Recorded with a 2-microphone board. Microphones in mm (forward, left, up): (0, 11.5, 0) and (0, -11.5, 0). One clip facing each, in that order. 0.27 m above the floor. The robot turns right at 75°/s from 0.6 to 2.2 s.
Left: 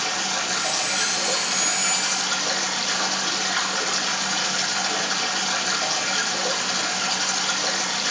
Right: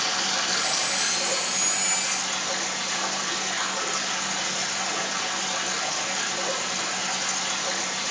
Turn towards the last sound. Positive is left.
turn(degrees=110)